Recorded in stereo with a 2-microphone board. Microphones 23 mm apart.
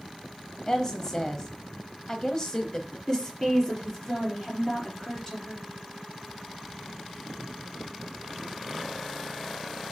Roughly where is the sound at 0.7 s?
Left.